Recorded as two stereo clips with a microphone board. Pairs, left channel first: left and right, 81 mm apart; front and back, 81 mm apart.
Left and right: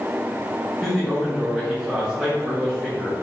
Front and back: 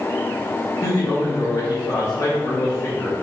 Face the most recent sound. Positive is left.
turn(degrees=-10)